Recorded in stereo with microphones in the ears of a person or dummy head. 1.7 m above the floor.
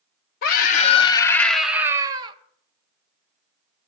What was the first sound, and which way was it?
A scream, 55° left (ahead or behind).